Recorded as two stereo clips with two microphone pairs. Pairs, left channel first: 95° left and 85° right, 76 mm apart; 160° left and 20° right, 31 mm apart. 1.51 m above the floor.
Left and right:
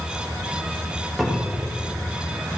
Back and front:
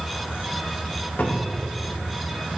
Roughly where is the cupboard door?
Behind.